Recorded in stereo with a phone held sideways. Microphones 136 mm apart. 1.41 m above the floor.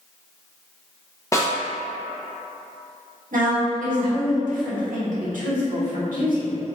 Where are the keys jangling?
I don't hear keys jangling.